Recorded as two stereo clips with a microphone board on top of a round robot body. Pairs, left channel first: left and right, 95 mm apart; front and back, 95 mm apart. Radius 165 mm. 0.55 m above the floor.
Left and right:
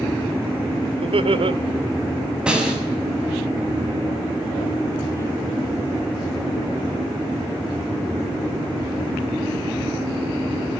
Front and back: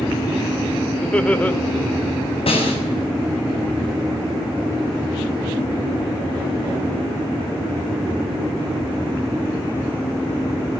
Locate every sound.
1.0 s laughter: 75° right, 2.5 m
2.5 s a snare drum: 10° right, 6.5 m